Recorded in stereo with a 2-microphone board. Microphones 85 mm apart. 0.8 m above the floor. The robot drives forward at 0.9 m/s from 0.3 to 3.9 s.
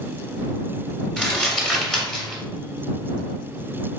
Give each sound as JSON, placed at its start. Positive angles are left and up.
{"t": 1.2, "sound": "crumpling", "side_deg": 5, "distance_m": 1.5}